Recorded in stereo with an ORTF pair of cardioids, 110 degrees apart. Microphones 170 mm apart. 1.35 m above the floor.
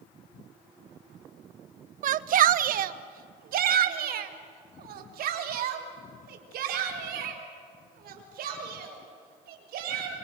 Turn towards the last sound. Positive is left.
turn(degrees=-70)